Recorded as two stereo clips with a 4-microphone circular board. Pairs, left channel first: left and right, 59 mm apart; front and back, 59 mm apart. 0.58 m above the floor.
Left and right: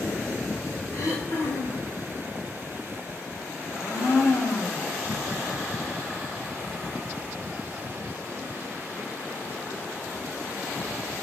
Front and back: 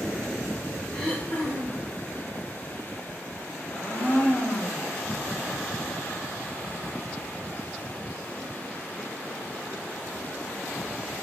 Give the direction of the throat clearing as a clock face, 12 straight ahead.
9 o'clock.